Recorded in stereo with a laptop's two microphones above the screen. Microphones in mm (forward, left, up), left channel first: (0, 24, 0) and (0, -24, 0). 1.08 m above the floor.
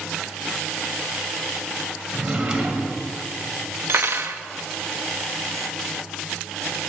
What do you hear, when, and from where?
2.1 s a drawer: 20° right (ahead or behind), 1.9 m
3.9 s cutlery clinking: 55° right (ahead or behind), 0.5 m